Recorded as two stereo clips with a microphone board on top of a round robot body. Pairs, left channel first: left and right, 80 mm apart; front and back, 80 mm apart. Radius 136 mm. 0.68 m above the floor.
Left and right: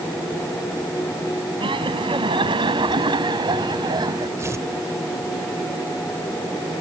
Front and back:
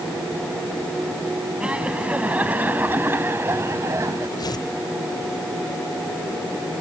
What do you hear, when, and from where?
1.6 s laughter: 100° right; by 4.3 s 130° right
4.4 s tearing paper: 35° right